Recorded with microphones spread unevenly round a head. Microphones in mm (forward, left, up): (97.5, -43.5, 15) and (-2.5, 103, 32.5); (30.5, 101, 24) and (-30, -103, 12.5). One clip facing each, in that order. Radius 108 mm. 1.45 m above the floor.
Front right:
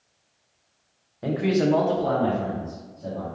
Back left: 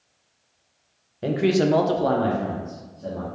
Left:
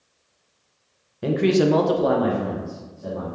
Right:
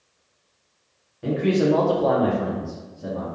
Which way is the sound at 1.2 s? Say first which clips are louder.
Back left 2 dB, left 2 dB; 65° left.